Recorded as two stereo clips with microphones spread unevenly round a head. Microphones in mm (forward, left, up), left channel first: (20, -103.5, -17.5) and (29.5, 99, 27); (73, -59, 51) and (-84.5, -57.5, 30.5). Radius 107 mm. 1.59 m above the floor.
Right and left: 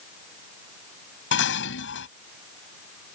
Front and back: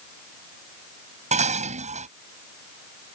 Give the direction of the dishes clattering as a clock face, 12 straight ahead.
4 o'clock.